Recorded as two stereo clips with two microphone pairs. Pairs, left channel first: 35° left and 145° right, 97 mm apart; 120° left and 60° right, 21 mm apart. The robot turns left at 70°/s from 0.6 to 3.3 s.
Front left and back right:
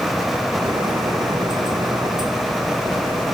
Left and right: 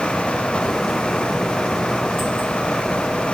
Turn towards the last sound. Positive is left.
No sound to turn to.